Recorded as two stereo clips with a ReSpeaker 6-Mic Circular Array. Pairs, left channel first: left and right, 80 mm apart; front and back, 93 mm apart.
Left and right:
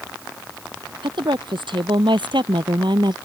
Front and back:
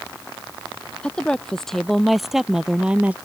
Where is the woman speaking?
80° right; by 3.1 s 105° right.